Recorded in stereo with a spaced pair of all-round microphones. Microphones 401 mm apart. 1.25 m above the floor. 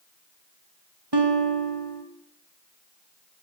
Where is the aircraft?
I don't hear an aircraft.